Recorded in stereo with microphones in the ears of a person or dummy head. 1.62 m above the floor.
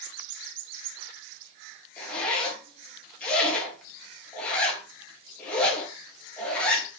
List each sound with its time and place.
2.0 s a zipper: 10° left (ahead or behind), 3 m